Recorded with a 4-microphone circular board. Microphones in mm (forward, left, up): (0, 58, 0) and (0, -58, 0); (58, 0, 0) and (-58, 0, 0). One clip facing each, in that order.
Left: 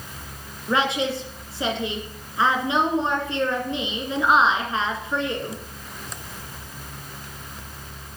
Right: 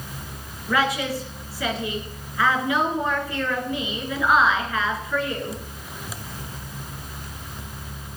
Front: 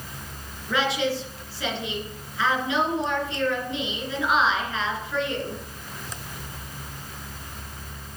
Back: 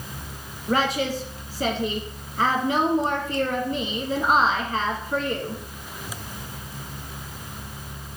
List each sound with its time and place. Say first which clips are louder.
0.7 s a woman speaking: even, back 1 dB; 150° left, 2.5 m